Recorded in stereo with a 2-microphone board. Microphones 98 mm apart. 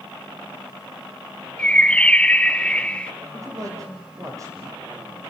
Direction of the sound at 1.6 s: 10° left (ahead or behind).